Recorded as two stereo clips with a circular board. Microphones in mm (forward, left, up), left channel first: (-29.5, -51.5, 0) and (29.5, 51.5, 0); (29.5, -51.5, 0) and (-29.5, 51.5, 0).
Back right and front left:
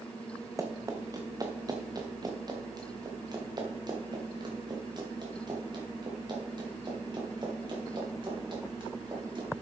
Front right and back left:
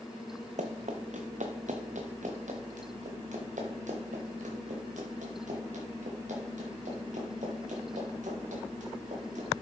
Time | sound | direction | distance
0.6 | running footsteps | 125° left | 1.5 m